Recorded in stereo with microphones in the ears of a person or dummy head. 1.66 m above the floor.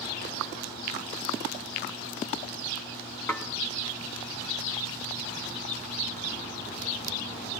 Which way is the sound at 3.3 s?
10° left (ahead or behind).